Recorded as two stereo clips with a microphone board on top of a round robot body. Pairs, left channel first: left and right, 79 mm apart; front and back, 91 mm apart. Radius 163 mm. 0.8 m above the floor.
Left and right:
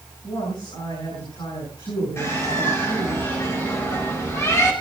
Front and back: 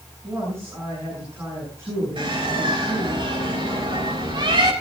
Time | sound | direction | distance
0.2 | a woman speaking | 120° left | 9.5 m
2.2 | a bird | 150° left | 4.5 m